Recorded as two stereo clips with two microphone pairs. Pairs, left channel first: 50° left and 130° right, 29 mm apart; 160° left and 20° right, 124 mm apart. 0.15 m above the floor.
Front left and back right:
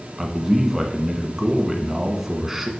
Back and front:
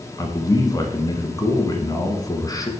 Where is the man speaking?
160° left, 1.3 m.